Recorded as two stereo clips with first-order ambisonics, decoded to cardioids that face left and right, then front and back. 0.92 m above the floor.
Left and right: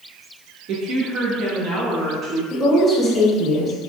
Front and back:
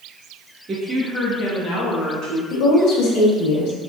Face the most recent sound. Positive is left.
turn(degrees=10)